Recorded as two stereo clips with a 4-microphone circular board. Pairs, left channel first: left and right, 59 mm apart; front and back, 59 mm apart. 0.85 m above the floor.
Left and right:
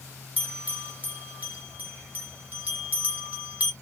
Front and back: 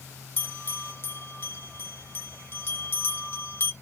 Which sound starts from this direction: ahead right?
A bell, at 0.4 s.